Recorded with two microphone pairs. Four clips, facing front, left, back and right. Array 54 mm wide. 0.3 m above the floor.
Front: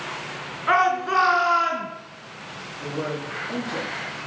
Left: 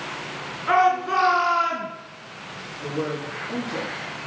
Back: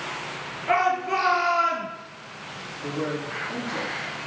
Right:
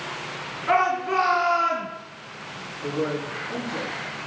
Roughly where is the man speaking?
Ahead left.